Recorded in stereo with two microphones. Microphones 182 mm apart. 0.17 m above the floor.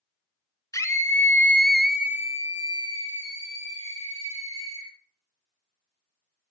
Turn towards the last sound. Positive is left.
turn(degrees=-30)  # may be behind; listen again after turning